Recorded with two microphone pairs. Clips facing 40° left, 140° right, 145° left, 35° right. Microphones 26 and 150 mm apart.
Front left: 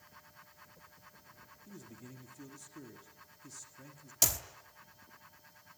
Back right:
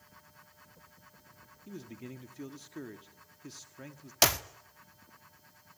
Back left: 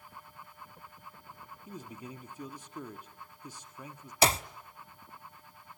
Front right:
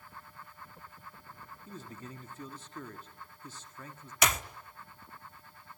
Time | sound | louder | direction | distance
1.7 | a man speaking | back right 8 dB, back left 2 dB | 145° right | 1.4 m
4.2 | a clap | back right 7 dB, back left 4 dB | 165° right | 1.0 m